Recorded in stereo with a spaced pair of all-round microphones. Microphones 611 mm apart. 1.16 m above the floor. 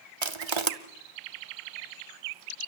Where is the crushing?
55° right (ahead or behind), 1.2 m.